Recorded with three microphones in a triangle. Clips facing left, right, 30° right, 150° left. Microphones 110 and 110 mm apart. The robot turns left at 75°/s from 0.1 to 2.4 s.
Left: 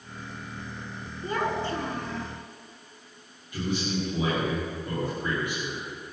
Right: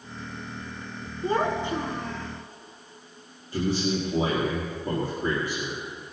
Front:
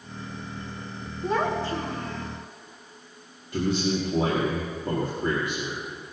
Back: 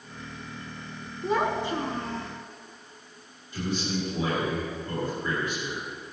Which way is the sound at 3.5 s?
40° right.